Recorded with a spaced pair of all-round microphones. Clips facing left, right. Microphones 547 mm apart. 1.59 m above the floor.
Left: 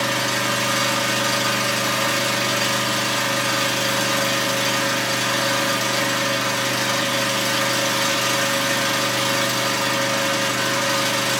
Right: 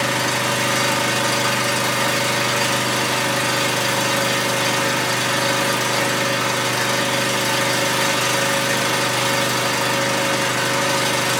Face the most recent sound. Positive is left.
turn(degrees=-70)  # may be behind; listen again after turning